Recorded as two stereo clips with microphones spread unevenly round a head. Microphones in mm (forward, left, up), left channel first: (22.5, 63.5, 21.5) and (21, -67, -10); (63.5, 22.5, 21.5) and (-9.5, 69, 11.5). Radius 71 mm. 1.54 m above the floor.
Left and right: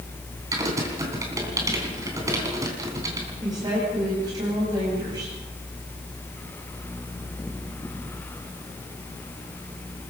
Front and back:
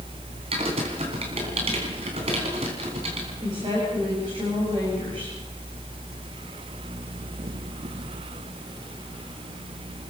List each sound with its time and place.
0.5 s typing on a keyboard: 165° right, 3 m
3.4 s a woman speaking: 160° right, 8.5 m